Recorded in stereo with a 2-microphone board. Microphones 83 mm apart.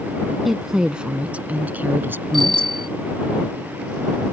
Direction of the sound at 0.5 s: 5° right (ahead or behind).